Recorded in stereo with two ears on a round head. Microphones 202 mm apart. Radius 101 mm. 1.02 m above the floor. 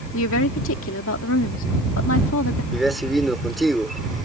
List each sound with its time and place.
0.1 s a woman speaking: 70° left (ahead or behind)
2.7 s a man speaking: centre (ahead or behind)